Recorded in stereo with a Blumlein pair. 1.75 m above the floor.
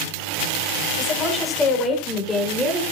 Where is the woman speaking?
15° left, 8.5 m; by 2.8 s 5° left, 7 m.